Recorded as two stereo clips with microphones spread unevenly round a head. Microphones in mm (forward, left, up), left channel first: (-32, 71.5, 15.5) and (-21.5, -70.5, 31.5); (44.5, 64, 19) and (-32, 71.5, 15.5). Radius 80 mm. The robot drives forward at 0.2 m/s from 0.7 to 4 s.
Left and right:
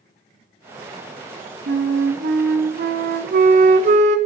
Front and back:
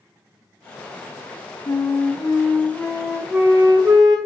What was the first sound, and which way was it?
A flute, 65° right.